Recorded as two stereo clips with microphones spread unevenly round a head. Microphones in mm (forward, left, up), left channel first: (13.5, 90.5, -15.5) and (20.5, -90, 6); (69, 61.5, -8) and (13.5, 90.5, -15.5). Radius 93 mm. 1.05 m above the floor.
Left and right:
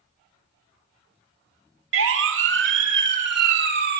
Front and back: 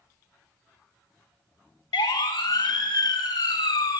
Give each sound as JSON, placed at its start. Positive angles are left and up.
{"t": 1.9, "sound": "a siren", "azimuth_deg": -70, "distance_m": 3.5}